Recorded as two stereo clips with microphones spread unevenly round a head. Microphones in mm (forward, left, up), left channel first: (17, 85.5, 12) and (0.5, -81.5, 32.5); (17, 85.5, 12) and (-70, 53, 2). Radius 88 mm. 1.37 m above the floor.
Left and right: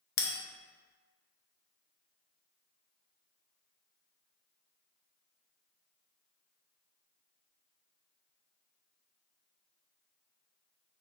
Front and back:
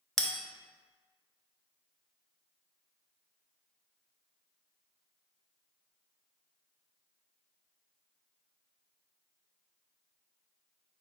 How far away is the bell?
About 0.6 m.